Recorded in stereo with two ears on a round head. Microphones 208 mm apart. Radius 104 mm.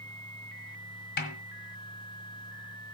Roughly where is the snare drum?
Left.